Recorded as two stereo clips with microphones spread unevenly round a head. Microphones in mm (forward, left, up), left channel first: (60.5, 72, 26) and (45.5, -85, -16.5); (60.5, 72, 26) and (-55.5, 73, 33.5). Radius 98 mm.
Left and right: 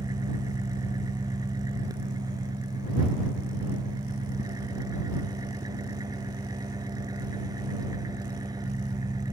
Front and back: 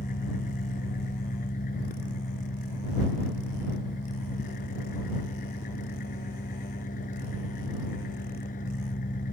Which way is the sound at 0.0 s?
25° right.